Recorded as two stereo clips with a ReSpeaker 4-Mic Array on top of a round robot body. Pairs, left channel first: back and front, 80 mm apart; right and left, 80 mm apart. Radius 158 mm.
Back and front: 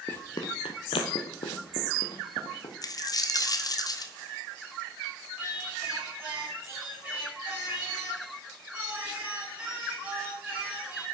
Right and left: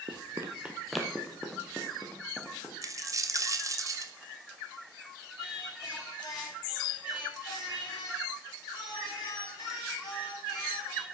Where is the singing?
65° right, 7 m.